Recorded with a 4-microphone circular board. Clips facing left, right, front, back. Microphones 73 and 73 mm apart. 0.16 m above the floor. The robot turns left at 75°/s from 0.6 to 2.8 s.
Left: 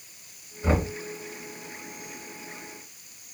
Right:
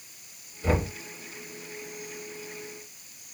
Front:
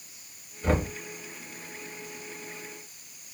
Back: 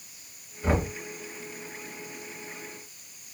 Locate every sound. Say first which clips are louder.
0.6 s knocking: left 1 dB, even; 120° left, 1.4 m; by 0.9 s 100° left, 1.4 m